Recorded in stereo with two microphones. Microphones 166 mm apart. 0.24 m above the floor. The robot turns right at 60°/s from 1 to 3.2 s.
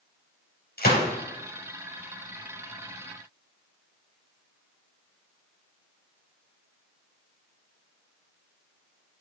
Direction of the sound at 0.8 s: 70° left (ahead or behind).